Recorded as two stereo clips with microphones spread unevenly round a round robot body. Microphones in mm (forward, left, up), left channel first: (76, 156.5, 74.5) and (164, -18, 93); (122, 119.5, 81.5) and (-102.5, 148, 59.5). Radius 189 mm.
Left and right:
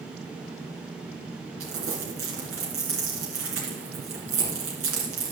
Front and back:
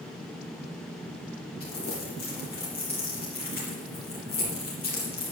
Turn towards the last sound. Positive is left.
turn(degrees=-80)